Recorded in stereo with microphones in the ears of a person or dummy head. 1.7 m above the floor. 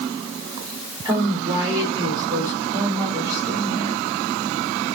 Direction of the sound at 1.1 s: 15° right (ahead or behind).